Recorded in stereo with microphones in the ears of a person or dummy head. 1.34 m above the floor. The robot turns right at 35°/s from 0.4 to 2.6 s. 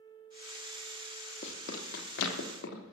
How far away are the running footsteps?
About 3 m.